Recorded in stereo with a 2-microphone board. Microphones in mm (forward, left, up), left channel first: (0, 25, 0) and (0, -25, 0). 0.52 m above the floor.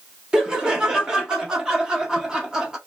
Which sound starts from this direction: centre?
Laughter, at 0.3 s.